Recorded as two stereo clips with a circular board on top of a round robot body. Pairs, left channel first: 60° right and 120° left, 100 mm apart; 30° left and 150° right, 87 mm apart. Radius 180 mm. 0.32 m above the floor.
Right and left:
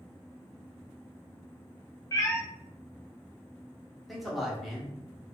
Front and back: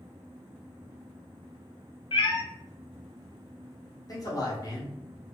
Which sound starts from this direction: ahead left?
A man speaking, at 4.1 s.